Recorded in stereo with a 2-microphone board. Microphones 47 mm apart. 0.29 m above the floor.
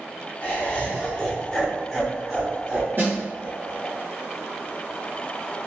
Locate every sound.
0.4 s laughter: 35° left (ahead or behind), 1.1 m; by 4.0 s 30° right (ahead or behind), 1.6 m
3.0 s a snare drum: 45° right (ahead or behind), 1.8 m